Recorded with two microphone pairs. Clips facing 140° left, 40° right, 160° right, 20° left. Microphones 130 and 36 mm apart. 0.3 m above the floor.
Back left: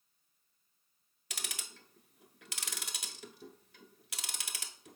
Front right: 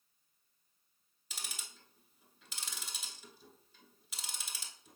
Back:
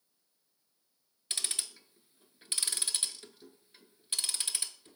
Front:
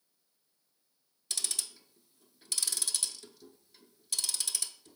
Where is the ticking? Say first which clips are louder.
Back left 3 dB, back 1 dB; 145° left, 0.6 m.